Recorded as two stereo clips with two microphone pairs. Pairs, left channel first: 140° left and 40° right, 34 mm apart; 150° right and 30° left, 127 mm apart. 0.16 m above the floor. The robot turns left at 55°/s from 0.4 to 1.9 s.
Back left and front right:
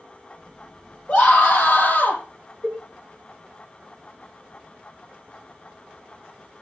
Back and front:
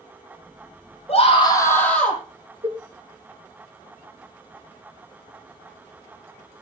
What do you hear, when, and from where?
1.1 s a scream: 175° left, 6 m; by 2.2 s 130° left, 6 m
2.6 s a cowbell: 15° right, 1.6 m